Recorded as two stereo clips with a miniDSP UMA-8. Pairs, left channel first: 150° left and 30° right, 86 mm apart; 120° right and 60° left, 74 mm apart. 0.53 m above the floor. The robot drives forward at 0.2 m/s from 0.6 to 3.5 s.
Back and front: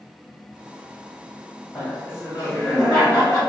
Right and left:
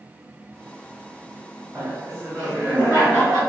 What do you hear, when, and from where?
1.8 s laughter: 100° left, 1.9 m; by 3.4 s 110° left, 2.0 m